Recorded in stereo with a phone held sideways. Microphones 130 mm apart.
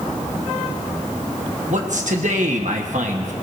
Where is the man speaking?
70° right (ahead or behind), 1.3 m.